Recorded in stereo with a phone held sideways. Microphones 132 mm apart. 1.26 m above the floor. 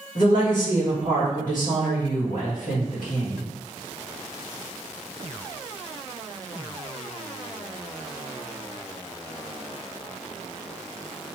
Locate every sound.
0.1 s a woman speaking: 80° left, 1.9 m